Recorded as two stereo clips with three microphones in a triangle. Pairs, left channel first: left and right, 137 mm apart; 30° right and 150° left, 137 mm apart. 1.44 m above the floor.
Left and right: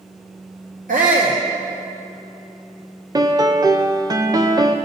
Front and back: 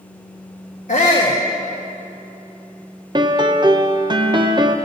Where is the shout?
65° right, 1.2 m.